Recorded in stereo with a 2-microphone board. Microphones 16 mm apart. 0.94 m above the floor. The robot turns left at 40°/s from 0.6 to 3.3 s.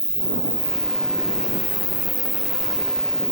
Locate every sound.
0.0 s an insect: 120° right; by 3.3 s 130° left